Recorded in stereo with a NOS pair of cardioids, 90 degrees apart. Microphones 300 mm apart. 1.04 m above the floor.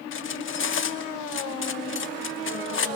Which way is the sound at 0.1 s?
45° left.